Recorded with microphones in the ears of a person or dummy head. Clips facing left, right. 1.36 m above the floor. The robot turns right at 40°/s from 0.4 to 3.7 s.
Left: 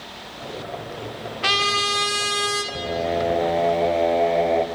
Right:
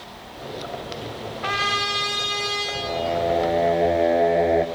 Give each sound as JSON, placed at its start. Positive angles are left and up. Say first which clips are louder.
{"t": 1.4, "sound": "a trumpet", "louder": "left 3 dB", "azimuth_deg": 50, "distance_m": 2.5}
{"t": 2.7, "sound": "singing", "louder": "even", "azimuth_deg": 150, "distance_m": 0.9}